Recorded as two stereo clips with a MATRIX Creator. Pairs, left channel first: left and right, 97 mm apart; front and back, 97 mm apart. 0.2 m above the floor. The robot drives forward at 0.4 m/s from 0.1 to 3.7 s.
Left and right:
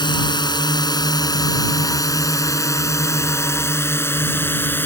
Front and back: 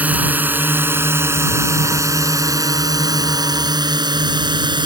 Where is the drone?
110° left; by 4.9 s 155° left.